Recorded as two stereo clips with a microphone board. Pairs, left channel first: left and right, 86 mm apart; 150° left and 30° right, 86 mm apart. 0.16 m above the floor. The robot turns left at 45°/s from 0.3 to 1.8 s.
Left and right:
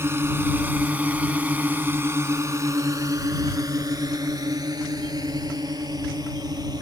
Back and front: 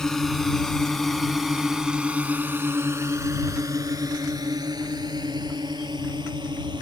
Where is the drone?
130° right; by 6.8 s 55° right.